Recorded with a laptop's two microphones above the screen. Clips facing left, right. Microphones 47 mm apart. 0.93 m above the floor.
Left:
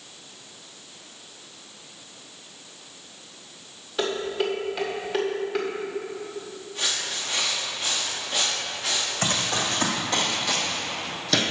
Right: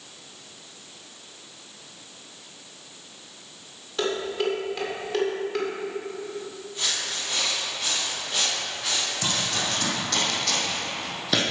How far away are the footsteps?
About 3.5 m.